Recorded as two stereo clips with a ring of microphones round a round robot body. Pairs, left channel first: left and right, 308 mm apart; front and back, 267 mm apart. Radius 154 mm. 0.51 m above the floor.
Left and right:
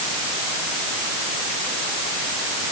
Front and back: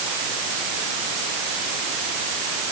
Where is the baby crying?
I don't hear a baby crying.